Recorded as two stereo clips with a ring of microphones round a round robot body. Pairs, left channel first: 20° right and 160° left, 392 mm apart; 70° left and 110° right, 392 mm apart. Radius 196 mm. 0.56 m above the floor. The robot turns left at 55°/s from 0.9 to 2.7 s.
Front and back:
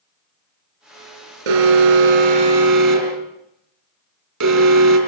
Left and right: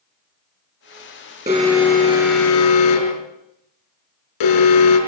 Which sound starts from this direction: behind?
An alarm, at 1.5 s.